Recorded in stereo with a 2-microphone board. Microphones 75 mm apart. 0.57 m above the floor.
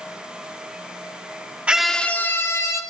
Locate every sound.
1.7 s a scream: 15° right (ahead or behind), 0.8 m; by 2.8 s 45° left (ahead or behind), 2.0 m